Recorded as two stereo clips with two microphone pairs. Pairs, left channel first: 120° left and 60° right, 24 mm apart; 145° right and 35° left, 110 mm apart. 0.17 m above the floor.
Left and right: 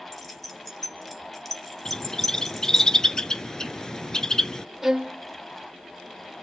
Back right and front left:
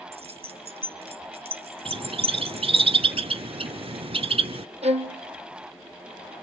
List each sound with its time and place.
0.1 s keys jangling: 45° left, 1.6 m
1.9 s a bird: 60° left, 0.6 m
4.8 s a violin: 20° left, 1.6 m